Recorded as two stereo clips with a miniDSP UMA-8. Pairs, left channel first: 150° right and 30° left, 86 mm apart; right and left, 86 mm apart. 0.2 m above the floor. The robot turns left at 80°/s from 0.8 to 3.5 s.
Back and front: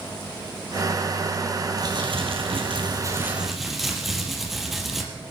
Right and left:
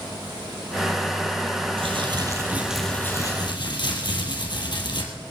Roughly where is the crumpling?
Left.